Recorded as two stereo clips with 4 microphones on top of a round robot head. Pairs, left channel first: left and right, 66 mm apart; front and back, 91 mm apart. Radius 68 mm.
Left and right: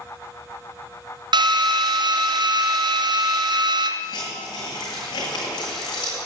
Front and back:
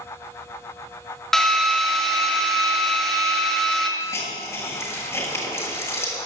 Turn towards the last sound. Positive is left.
turn(degrees=60)